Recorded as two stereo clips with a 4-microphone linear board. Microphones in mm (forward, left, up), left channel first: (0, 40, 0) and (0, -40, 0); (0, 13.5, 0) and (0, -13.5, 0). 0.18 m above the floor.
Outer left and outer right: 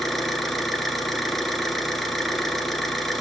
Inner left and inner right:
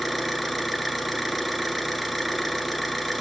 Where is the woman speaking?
I don't hear a woman speaking.